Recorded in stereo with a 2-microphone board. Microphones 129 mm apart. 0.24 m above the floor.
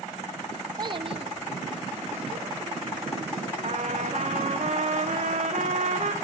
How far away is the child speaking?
About 0.9 m.